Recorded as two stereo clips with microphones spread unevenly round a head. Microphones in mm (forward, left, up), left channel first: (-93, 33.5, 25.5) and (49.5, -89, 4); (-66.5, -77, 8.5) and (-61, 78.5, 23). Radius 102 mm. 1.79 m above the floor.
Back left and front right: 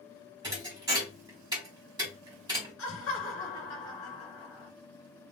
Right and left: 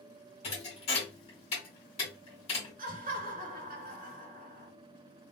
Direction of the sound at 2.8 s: 110° left.